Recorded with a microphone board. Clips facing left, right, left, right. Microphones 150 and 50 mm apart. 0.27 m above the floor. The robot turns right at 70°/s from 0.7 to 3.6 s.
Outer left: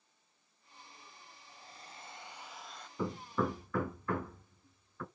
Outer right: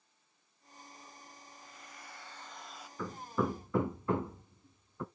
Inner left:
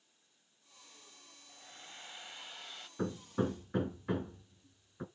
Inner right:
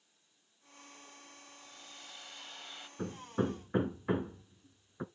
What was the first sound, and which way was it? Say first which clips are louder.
A hair dryer: even, inner left 5 dB; 95° left.